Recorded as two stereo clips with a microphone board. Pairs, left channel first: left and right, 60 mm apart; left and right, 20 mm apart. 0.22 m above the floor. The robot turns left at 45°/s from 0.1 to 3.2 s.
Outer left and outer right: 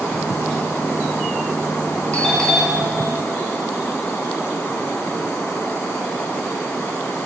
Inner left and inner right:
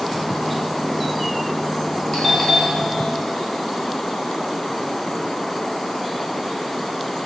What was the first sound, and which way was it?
A doorbell, 25° left.